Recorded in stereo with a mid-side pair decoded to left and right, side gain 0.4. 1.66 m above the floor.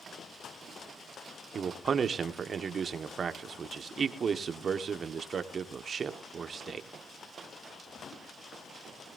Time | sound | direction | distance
1.6 | a man speaking | 50° right | 1.3 m